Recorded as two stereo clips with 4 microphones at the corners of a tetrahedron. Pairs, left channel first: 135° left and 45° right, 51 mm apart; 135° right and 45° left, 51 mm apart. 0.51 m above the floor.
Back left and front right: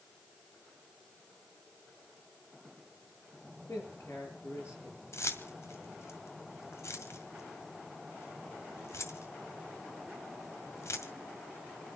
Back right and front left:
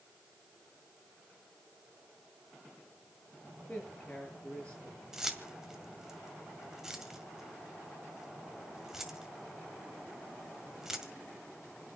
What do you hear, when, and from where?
3.7 s a man speaking: 155° left, 8.5 m
5.1 s keys jangling: 125° left, 1.9 m